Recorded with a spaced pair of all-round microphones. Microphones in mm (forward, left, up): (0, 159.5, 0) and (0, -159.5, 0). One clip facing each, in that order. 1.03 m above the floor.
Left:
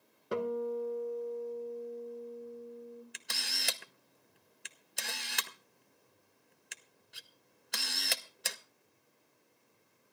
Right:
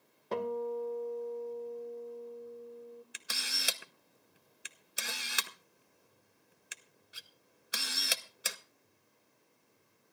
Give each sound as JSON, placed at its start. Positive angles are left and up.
{"t": 0.3, "sound": "a guitar", "side_deg": 15, "distance_m": 1.6}
{"t": 3.1, "sound": "a camera shutter", "side_deg": -5, "distance_m": 0.8}